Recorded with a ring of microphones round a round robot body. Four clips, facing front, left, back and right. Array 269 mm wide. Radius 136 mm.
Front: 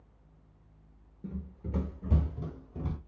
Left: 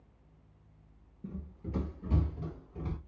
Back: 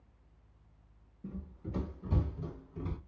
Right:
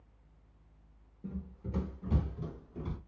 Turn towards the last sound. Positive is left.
turn(degrees=20)